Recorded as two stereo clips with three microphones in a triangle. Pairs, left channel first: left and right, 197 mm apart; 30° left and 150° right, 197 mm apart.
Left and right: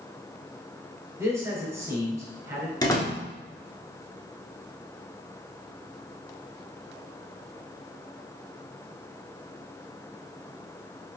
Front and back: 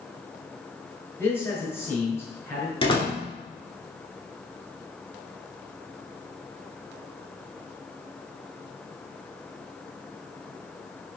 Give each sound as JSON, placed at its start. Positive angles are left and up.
{"t": 1.2, "sound": "a man speaking", "azimuth_deg": -35, "distance_m": 1.2}
{"t": 2.8, "sound": "a door slam", "azimuth_deg": 45, "distance_m": 0.9}